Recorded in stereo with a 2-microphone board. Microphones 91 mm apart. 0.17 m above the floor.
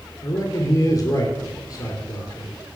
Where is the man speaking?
40° left (ahead or behind), 3.5 m.